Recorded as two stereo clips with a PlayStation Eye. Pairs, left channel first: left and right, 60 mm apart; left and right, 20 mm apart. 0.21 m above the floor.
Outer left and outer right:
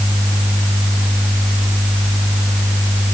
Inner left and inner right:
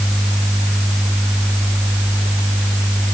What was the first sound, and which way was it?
Only background noise.